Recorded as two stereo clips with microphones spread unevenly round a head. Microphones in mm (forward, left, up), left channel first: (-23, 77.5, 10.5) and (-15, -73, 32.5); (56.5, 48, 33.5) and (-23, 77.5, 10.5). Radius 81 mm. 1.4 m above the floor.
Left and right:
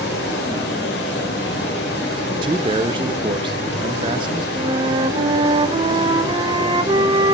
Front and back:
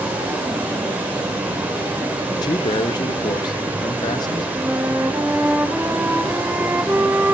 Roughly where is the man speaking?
Ahead right.